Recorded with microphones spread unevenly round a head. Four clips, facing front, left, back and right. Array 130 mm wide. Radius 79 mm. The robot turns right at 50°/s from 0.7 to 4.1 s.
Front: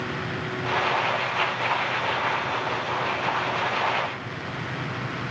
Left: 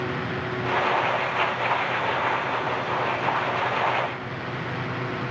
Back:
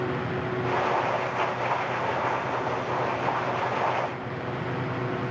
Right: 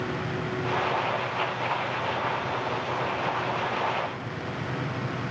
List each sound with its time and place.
Only background noise.